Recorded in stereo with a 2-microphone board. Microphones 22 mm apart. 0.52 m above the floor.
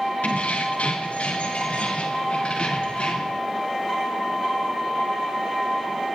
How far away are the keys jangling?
About 2.5 m.